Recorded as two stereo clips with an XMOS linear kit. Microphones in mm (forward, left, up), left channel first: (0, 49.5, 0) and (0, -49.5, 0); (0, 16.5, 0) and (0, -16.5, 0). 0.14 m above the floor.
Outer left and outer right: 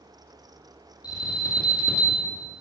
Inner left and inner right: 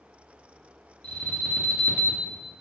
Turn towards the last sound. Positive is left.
turn(degrees=45)  # may be behind; listen again after turning